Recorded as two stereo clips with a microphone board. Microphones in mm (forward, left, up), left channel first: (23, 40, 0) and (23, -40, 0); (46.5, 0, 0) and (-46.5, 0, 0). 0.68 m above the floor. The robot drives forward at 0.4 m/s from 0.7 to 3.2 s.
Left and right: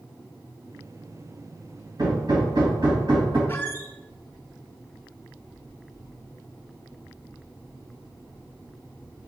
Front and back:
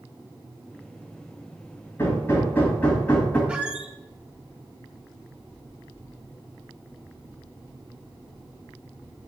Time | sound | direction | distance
2.0 | hammering | 60° right | 1.9 m
3.5 | a squeak | 110° left | 0.6 m